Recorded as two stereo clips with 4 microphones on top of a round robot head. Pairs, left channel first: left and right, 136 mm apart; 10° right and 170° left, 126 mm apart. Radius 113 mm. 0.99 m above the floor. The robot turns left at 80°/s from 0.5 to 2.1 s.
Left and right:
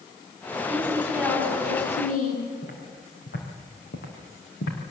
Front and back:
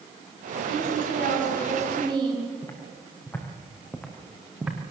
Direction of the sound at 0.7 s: 130° right.